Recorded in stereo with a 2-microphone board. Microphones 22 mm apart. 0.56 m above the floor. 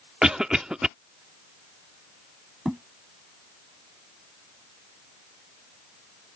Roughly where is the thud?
Right.